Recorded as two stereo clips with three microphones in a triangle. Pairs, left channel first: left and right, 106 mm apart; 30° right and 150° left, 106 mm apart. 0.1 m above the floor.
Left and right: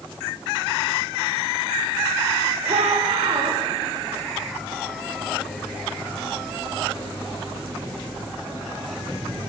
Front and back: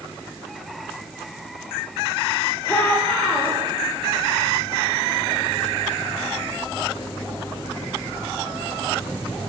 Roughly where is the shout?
Right.